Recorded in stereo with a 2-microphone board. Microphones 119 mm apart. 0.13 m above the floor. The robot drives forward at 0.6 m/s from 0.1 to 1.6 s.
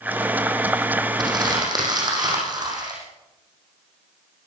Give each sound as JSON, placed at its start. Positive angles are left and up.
{"t": 1.2, "sound": "crumpling", "side_deg": -35, "distance_m": 7.0}